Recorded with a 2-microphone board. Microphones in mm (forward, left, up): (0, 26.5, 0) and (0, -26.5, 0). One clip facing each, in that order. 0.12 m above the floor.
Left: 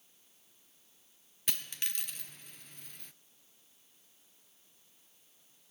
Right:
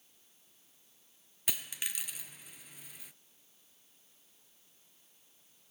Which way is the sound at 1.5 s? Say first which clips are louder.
Right 1 dB; 5° right (ahead or behind).